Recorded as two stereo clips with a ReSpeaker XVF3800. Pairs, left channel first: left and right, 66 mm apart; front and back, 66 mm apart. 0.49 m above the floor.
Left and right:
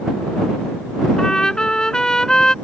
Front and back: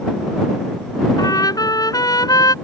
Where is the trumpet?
10° left.